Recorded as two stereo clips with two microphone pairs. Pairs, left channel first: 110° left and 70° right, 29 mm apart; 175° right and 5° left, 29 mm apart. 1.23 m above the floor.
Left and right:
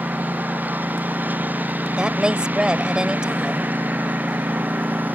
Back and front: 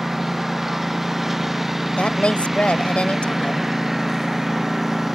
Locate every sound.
0.0 s a lawn mower: 75° right
2.0 s a woman speaking: 130° right